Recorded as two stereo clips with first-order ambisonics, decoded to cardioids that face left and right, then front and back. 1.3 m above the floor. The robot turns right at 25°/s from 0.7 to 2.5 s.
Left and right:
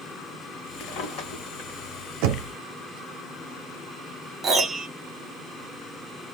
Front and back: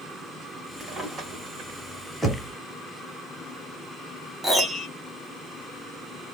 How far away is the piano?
About 0.8 m.